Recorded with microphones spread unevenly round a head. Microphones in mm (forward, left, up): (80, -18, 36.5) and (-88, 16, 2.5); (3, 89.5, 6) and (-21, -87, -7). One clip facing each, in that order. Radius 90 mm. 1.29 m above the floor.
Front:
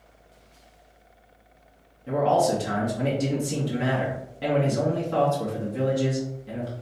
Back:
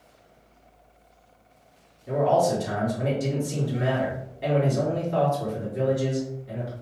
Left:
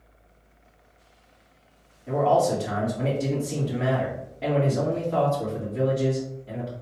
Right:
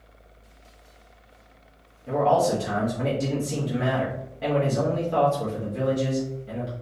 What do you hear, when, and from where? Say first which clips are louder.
2.1 s a man speaking: even, even; 20° right, 1.9 m